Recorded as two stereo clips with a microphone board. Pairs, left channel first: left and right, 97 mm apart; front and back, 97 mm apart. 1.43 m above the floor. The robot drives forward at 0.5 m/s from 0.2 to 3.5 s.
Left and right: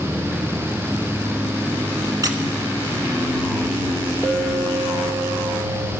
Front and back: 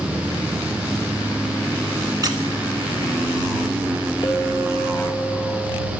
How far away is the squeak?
About 1.4 m.